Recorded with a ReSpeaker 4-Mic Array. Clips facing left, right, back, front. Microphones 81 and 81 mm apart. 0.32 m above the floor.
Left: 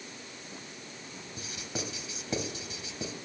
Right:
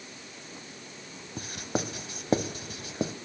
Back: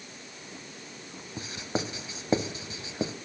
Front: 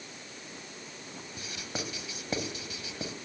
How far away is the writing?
About 0.8 m.